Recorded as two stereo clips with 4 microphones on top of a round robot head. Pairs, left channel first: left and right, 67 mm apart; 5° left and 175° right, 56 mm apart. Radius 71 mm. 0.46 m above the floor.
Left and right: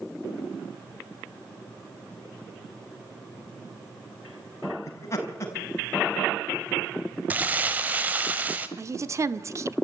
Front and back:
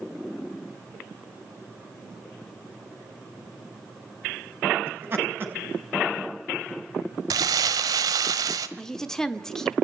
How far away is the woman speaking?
About 1.1 m.